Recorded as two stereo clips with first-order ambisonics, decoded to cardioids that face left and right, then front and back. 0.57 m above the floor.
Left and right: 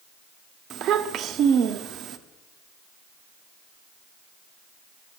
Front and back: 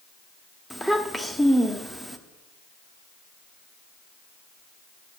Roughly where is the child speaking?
Right.